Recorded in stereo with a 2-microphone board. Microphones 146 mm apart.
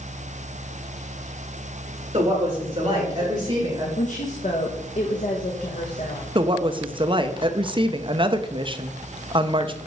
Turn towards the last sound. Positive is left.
turn(degrees=-35)  # may be behind; listen again after turning